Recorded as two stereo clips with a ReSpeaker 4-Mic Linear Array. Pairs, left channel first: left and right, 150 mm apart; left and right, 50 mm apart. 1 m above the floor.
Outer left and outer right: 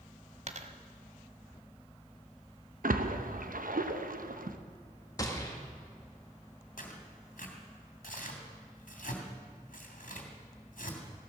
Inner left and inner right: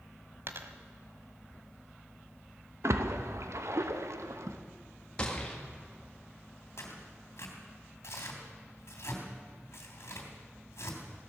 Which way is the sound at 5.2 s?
25° left (ahead or behind).